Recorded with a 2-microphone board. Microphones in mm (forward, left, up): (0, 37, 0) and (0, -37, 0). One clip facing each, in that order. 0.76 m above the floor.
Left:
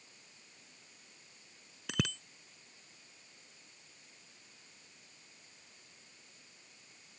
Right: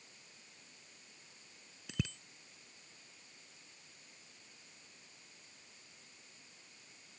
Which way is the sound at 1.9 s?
70° left (ahead or behind).